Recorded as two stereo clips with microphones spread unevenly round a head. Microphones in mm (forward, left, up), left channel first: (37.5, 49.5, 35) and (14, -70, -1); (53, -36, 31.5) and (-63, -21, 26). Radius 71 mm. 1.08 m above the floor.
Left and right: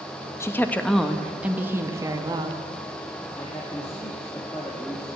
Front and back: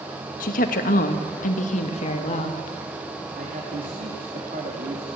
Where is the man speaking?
155° left, 1.9 m.